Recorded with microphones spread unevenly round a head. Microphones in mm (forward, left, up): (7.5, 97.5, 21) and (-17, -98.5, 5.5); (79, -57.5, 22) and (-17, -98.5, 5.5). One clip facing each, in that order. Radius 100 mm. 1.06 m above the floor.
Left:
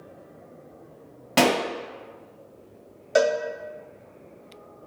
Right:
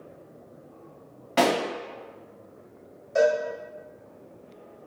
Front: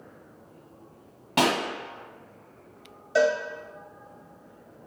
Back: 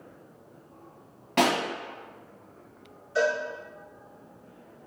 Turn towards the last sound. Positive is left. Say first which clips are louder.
# even, front 4 dB
turn(degrees=70)